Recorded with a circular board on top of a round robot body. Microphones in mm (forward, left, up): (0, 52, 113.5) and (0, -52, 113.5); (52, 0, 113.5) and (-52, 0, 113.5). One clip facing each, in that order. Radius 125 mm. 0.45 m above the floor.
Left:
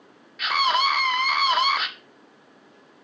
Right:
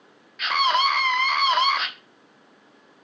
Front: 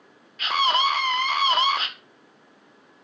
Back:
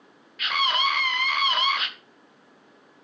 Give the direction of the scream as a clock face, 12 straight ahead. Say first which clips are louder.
Right 1 dB, front 3 dB; 12 o'clock.